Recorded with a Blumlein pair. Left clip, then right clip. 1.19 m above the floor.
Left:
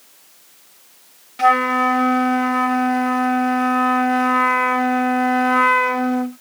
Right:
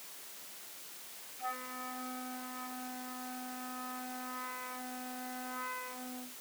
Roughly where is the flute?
Ahead left.